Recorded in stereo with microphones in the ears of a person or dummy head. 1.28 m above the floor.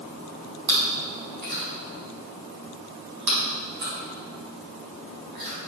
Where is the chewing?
55° right (ahead or behind), 3.5 m.